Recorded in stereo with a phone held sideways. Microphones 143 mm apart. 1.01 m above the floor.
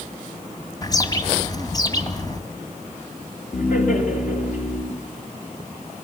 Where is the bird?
25° left (ahead or behind), 2 m.